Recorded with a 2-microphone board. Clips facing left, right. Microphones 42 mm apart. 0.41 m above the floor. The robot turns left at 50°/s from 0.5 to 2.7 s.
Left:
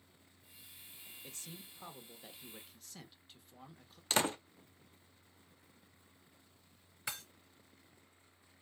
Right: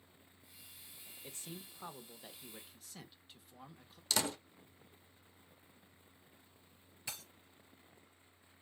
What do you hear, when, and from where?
1.2 s a man speaking: 20° right (ahead or behind), 0.7 m; by 4.0 s 5° right (ahead or behind), 0.7 m
4.1 s a door slam: 35° left (ahead or behind), 0.6 m
7.1 s breaking glass: 80° left, 3.5 m